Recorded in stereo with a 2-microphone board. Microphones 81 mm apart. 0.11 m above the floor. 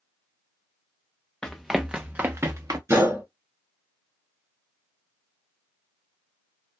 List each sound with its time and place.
1.4 s running footsteps: 10° left (ahead or behind), 0.7 m; by 2.8 s 45° right (ahead or behind), 0.8 m
2.9 s a gunshot: 30° right (ahead or behind), 1.9 m